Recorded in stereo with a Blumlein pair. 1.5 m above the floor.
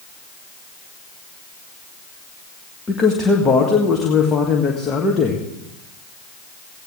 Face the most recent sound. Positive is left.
turn(degrees=15)